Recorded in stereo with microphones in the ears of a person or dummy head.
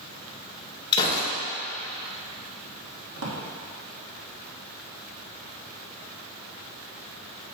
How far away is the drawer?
About 1.5 m.